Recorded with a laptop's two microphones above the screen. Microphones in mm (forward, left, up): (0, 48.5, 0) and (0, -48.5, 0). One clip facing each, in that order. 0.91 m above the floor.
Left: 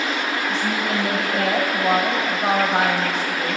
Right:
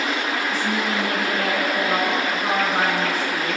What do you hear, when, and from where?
0.5 s a woman speaking: 70° left (ahead or behind), 4 m